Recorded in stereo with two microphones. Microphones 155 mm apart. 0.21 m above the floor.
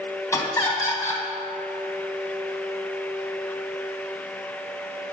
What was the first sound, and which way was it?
Laughter, 20° left (ahead or behind).